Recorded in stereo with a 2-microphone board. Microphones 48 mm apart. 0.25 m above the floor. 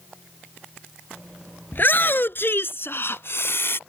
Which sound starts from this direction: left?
A shout, at 1.7 s.